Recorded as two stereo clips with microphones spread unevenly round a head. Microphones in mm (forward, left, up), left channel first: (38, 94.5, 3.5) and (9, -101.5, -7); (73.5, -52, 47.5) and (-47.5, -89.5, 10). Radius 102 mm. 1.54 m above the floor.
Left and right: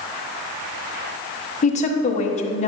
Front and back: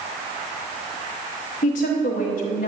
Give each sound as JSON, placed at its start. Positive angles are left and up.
{"t": 1.6, "sound": "a woman speaking", "azimuth_deg": 30, "distance_m": 1.1}